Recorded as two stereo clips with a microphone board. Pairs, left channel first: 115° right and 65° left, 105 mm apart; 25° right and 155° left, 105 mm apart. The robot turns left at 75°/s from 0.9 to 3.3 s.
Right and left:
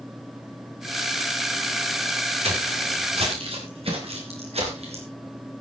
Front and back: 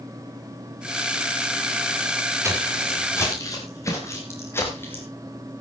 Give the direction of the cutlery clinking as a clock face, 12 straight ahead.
No cutlery clinking in this recording.